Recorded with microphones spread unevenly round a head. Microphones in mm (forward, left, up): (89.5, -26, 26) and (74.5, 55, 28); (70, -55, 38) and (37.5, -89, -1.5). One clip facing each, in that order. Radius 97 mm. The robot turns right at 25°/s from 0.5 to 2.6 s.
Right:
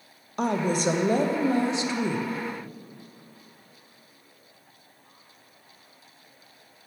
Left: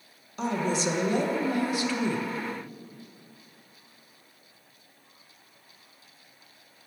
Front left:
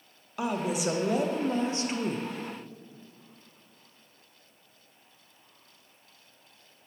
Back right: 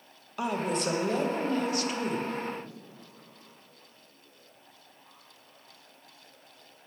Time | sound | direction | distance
0.4 | a woman speaking | 45° right | 0.8 m